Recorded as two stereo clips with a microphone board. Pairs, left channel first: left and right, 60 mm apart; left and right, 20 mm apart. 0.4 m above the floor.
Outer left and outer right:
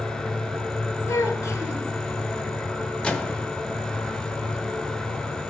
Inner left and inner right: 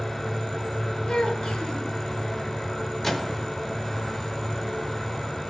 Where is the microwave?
15° left (ahead or behind), 0.8 m.